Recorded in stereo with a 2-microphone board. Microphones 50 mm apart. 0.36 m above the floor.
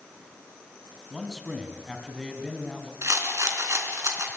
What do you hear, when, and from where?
1.1 s a man speaking: centre (ahead or behind), 3.5 m
3.0 s a rattle: 70° right (ahead or behind), 4 m